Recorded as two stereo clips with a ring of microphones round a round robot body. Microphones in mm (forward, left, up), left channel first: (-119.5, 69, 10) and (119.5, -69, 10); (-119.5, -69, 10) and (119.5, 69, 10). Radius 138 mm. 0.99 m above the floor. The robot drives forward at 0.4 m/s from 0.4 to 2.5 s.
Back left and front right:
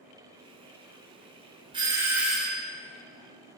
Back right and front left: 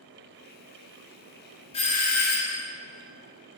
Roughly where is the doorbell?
Right.